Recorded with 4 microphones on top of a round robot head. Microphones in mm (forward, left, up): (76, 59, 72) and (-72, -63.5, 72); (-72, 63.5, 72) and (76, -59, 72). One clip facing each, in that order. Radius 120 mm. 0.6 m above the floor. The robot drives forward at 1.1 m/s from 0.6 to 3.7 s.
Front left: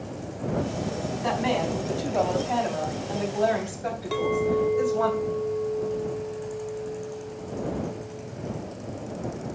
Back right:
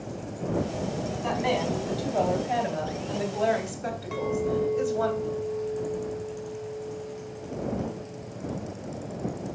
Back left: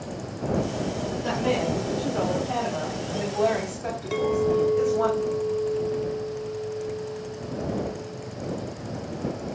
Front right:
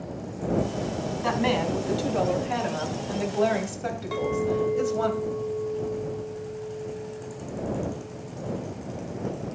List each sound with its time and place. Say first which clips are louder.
1.2 s a woman speaking: front left 1 dB, even; 45° right, 4.5 m; by 5.1 s 80° right, 3.5 m
4.1 s a clink: front left 3 dB, back left 4 dB; 85° left, 1.1 m